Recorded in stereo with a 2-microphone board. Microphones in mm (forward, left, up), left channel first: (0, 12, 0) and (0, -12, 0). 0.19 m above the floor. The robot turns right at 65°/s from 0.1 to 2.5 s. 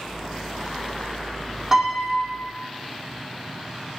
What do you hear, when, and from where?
1.7 s a piano: 155° right, 2 m; by 2.4 s 105° right, 2 m